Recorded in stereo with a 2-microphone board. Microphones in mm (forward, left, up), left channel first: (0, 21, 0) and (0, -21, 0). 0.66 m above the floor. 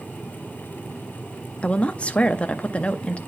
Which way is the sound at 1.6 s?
30° left (ahead or behind).